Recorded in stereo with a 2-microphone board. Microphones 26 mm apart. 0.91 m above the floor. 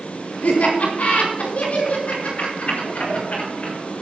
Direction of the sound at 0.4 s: 70° left (ahead or behind).